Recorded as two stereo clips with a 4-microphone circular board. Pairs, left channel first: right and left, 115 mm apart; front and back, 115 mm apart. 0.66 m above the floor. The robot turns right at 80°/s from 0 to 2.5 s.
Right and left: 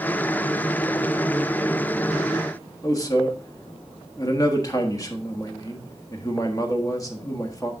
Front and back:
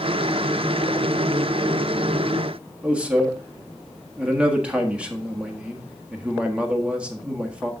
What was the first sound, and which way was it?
A man speaking, 110° right.